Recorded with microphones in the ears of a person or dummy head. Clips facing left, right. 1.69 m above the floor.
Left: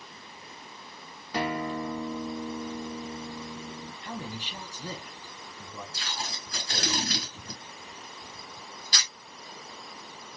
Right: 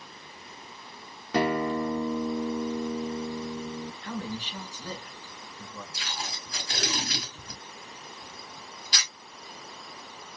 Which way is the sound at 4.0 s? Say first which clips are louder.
Right 1 dB; 10° left (ahead or behind).